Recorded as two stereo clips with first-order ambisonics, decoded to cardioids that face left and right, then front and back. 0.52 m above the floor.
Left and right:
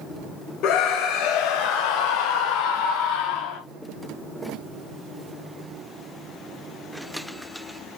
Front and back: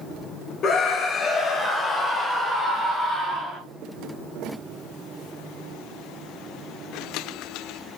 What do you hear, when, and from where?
0.6 s a scream: 60° left, 1.7 m; by 3.6 s 95° left, 2.5 m